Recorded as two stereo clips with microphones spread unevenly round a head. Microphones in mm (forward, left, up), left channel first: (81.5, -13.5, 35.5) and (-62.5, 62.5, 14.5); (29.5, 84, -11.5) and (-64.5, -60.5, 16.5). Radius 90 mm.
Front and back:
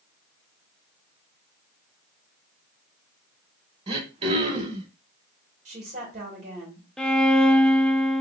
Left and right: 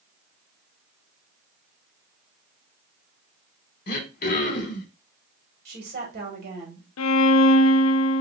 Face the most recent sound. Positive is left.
turn(degrees=55)